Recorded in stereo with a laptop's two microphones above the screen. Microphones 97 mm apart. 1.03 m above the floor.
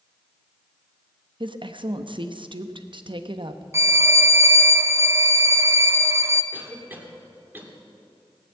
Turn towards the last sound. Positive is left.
turn(degrees=-20)  # may be behind; listen again after turning